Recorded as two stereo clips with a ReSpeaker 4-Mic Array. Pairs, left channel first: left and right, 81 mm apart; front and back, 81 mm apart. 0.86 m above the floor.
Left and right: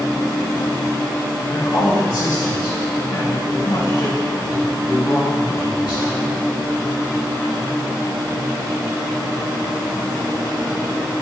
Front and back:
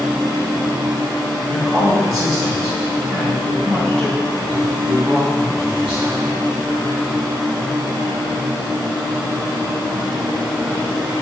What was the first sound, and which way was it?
A woman speaking, 80° left.